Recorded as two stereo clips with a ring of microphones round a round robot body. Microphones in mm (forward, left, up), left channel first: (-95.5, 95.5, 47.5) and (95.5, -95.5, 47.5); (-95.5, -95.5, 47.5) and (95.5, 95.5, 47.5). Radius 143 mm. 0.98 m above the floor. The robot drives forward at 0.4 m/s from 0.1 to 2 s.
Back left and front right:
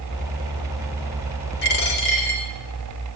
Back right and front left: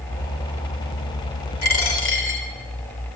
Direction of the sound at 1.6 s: 175° right.